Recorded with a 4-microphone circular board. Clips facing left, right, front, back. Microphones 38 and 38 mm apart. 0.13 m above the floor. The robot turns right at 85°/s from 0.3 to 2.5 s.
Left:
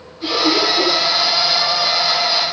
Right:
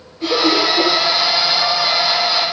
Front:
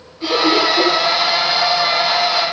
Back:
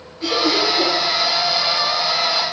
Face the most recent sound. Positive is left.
turn(degrees=110)